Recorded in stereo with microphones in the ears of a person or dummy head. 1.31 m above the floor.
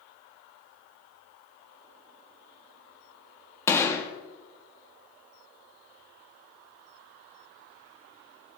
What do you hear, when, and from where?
3.7 s a gunshot: 15° left (ahead or behind), 1.0 m